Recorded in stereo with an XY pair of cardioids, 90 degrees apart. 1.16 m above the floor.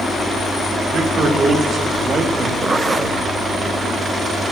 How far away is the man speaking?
About 2.5 m.